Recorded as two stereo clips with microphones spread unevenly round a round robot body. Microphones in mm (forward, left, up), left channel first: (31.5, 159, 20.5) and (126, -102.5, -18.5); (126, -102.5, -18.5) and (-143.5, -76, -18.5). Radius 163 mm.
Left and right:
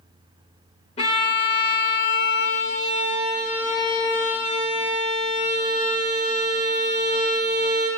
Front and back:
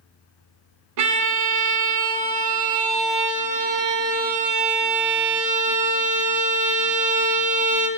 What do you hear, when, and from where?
1.0 s a violin: 175° right, 0.6 m